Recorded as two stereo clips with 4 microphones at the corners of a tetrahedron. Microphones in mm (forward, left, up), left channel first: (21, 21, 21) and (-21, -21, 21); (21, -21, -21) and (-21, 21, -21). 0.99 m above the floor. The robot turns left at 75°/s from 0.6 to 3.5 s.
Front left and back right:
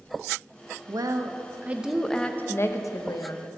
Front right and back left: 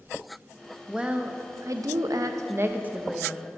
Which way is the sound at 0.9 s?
140° right.